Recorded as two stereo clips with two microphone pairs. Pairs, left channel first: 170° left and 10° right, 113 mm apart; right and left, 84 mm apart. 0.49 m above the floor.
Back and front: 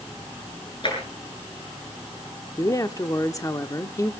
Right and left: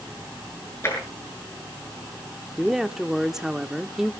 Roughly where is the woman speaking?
Behind.